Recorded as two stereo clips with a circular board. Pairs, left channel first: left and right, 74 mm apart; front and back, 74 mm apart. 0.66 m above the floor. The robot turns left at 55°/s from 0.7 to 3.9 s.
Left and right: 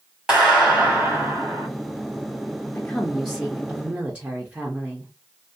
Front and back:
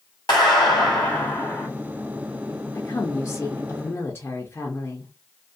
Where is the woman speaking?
35° left, 0.6 m; by 5.1 s 30° right, 0.6 m.